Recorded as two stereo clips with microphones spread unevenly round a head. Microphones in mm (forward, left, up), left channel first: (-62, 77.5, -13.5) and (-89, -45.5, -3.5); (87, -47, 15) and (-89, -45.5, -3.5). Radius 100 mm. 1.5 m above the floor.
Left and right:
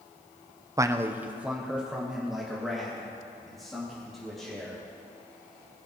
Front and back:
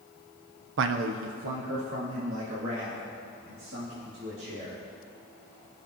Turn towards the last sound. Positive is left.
turn(degrees=165)